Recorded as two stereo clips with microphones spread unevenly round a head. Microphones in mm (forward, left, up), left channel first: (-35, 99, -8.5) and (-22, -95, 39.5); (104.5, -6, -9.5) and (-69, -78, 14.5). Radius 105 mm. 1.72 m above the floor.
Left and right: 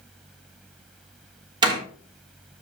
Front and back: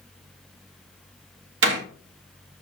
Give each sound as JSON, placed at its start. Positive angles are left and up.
{"t": 1.6, "sound": "a door slam", "azimuth_deg": -150, "distance_m": 3.0}